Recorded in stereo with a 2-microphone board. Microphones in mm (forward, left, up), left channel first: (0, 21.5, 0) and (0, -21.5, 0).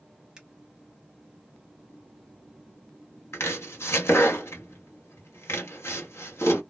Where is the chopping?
75° left (ahead or behind), 0.8 m.